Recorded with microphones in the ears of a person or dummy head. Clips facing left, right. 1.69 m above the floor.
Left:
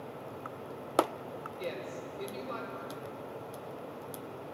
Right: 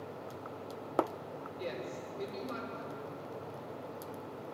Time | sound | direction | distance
1.6 | a woman speaking | 10° right (ahead or behind) | 6 m